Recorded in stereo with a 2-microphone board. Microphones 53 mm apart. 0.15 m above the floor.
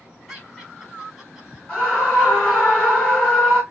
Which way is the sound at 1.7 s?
10° left (ahead or behind).